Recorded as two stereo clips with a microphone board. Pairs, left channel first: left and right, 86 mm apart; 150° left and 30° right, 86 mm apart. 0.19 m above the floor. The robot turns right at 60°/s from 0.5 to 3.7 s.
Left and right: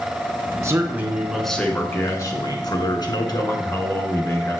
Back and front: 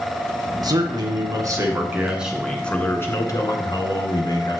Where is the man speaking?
45° right, 1.9 m; by 4.6 s 135° left, 1.9 m.